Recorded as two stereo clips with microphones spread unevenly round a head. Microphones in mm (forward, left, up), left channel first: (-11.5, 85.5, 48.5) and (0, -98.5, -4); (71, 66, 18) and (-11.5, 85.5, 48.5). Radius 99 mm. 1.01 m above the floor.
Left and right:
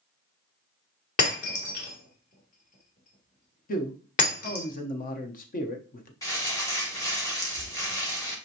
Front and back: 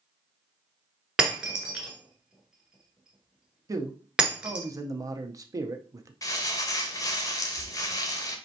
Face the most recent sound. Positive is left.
turn(degrees=45)